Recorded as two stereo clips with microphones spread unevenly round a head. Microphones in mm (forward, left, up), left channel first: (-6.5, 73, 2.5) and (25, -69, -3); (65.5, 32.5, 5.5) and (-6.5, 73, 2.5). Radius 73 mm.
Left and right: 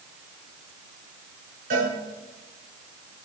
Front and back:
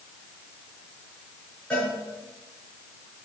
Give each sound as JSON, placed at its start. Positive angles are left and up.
{"t": 1.7, "sound": "a cowbell", "azimuth_deg": -115, "distance_m": 5.5}